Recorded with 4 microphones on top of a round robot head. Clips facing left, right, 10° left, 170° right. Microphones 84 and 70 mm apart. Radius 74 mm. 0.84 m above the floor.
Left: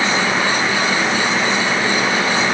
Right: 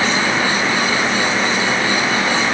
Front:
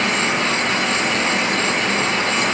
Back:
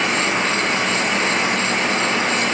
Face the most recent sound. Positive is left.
No sound to turn to.